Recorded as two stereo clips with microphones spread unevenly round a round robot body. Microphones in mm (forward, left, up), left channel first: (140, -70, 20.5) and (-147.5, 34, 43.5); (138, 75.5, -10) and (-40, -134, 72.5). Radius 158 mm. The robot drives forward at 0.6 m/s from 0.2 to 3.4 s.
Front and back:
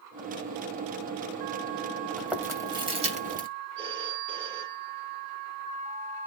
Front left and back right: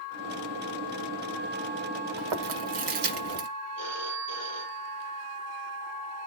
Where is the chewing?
110° right, 1.4 m; by 3.5 s 135° right, 1.7 m.